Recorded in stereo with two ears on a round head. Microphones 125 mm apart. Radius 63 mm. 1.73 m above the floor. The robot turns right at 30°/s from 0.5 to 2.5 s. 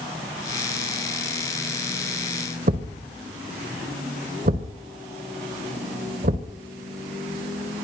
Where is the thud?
60° right (ahead or behind), 3 m.